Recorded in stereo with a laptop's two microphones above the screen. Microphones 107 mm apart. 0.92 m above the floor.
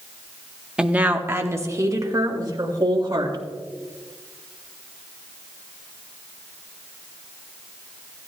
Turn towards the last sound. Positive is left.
turn(degrees=-40)  # may be behind; listen again after turning